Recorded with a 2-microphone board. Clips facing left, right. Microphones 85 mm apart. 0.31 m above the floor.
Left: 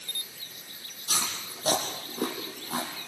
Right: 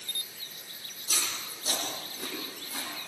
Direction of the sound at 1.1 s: 85° left.